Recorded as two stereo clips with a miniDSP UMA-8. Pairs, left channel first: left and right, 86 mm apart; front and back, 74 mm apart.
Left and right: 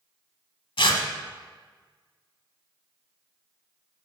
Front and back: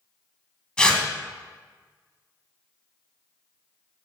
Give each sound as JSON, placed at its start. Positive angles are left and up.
{"t": 0.8, "sound": "tearing paper", "azimuth_deg": 80, "distance_m": 1.0}